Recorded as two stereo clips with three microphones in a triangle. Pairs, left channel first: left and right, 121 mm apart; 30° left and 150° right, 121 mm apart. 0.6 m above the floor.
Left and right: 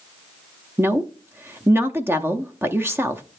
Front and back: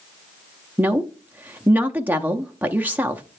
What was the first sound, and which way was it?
A woman speaking, 105° right.